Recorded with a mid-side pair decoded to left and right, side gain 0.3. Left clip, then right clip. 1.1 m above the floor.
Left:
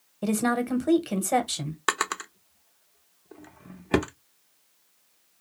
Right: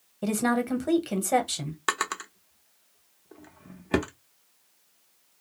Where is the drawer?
30° left, 0.5 m.